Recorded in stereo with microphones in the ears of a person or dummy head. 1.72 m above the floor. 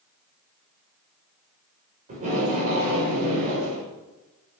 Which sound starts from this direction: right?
Tape being pulled, at 2.1 s.